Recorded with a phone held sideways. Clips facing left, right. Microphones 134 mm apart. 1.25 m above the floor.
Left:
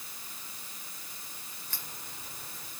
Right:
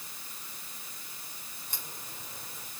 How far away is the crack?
About 3.5 m.